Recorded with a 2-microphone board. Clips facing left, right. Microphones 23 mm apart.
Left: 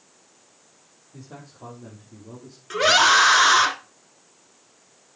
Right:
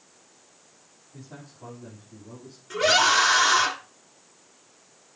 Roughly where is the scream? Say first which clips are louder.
Left 3 dB; left.